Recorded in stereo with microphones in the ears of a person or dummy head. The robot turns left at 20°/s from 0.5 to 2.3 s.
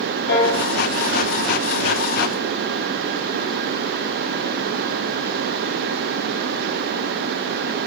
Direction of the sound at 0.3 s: 65° left (ahead or behind).